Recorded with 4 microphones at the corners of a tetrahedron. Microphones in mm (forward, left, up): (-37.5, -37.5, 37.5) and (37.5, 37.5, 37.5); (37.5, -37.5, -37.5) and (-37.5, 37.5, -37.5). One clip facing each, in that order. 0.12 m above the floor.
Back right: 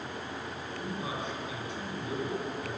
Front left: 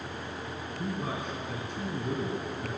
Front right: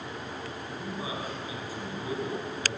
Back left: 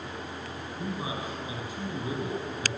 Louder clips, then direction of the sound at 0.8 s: Front left 2 dB, back left 2 dB; 70° left.